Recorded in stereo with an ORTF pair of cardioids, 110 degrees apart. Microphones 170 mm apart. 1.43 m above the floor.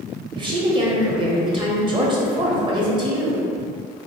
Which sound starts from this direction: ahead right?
A woman speaking, at 0.3 s.